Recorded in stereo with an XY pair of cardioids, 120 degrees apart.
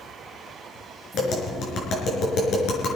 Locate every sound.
1.1 s tapping: 60° left, 4.5 m